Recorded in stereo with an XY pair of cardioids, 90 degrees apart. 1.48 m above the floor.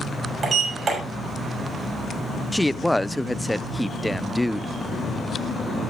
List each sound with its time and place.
0.4 s a sliding door: 50° right, 6 m
2.5 s a woman speaking: 5° left, 0.6 m